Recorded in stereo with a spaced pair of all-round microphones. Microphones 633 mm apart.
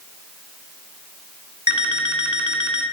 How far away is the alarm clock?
About 1.4 m.